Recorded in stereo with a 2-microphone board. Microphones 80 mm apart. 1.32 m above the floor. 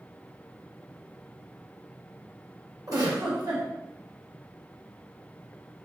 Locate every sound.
2.9 s a giggle: 50° right (ahead or behind), 1.1 m